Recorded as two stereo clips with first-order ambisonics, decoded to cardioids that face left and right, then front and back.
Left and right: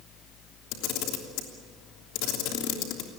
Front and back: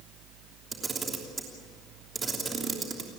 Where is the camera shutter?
110° left, 3 m.